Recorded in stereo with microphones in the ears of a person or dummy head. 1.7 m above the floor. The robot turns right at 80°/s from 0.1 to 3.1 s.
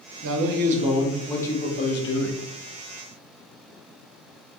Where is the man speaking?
80° right, 0.7 m; by 2.4 s 95° left, 0.7 m.